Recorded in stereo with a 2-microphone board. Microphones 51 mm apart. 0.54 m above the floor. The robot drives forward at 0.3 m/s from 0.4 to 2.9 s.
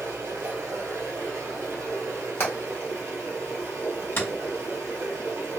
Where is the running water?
75° right (ahead or behind), 1.7 m; by 5.6 s 70° right (ahead or behind), 1.7 m.